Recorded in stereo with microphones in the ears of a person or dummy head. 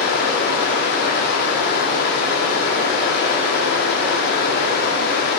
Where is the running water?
60° left (ahead or behind), 1.2 m.